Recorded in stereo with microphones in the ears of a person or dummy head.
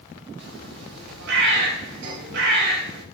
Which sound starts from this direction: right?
A bird, at 0.4 s.